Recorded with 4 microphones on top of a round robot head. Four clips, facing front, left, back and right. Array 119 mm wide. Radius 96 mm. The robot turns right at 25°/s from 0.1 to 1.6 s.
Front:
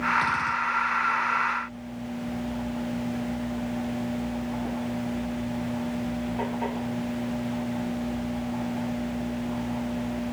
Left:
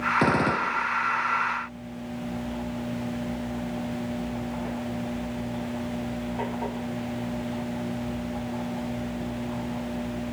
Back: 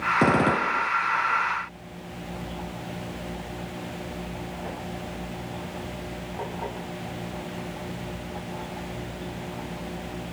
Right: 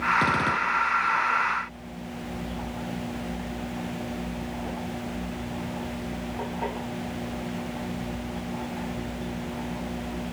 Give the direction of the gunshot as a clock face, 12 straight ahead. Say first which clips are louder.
Left 1 dB, back 5 dB; 7 o'clock.